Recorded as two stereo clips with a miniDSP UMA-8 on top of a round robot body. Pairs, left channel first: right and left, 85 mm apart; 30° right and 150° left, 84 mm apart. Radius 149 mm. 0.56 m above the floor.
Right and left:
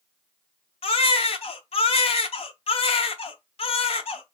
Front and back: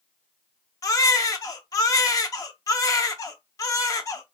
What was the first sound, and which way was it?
A baby crying, 85° right.